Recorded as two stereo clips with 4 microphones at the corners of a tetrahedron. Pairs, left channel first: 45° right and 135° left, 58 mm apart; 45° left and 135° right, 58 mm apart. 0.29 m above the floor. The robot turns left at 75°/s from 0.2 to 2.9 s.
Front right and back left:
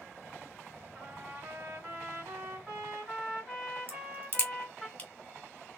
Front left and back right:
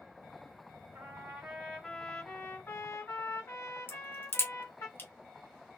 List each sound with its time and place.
0.9 s a trumpet: 160° right, 2 m; by 4.9 s 55° left, 2 m
3.9 s a crack: 15° left, 1.9 m